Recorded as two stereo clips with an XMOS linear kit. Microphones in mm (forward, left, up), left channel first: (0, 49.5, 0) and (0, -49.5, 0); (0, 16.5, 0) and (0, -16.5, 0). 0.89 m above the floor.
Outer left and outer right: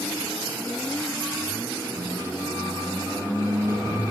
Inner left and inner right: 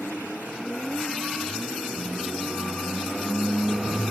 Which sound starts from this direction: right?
A squeak, at 1.9 s.